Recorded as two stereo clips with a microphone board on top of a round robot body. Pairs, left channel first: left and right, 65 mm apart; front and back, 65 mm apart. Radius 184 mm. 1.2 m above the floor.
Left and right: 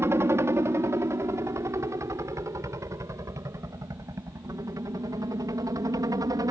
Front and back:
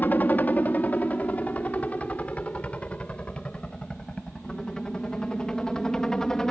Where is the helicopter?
55° right; by 6.5 s 80° right.